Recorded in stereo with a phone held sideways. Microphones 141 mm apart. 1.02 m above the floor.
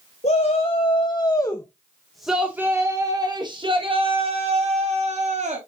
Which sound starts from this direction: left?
A shout, at 0.2 s.